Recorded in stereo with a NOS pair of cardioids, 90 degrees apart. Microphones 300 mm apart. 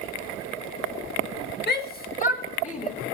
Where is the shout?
35° left, 1.8 m; by 2.9 s 20° left, 3 m.